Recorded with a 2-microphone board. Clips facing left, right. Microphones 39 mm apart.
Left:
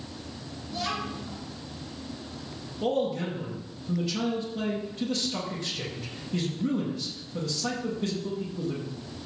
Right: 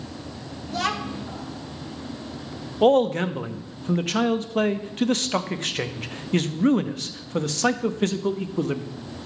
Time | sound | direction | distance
0.7 | a child speaking | 70° right (ahead or behind) | 1.2 m
2.8 | a man speaking | 55° right (ahead or behind) | 0.7 m